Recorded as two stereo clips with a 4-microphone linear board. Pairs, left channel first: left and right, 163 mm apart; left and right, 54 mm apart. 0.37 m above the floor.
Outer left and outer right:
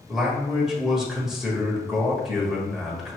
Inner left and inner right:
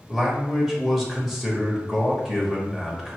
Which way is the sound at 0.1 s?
Centre (ahead or behind).